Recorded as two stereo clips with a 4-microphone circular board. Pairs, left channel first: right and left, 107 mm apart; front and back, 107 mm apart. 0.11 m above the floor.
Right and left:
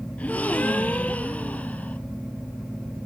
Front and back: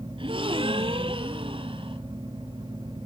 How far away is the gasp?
About 1.0 m.